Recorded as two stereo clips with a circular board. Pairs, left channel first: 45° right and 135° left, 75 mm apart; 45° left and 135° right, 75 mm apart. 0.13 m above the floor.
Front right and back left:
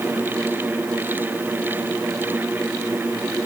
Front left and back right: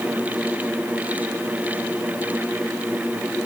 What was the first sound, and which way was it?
Only background noise.